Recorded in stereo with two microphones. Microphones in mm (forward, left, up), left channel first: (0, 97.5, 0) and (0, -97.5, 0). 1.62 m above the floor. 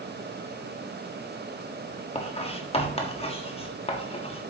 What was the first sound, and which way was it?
Writing, 30° left (ahead or behind).